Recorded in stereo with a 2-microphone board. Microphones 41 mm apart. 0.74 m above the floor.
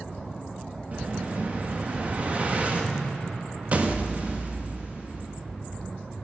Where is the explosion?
35° right (ahead or behind), 0.9 m.